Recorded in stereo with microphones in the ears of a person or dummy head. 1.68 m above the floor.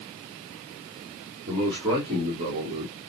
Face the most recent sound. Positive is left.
turn(degrees=-30)  # may be behind; listen again after turning